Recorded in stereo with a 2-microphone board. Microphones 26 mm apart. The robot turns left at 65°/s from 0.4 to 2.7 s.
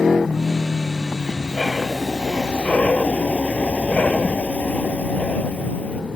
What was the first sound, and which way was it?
Breathing, 140° right.